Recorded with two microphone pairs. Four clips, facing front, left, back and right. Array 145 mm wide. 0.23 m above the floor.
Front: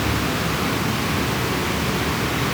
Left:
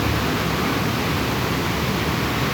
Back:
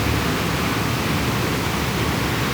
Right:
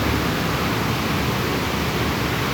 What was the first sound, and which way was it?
Only background noise.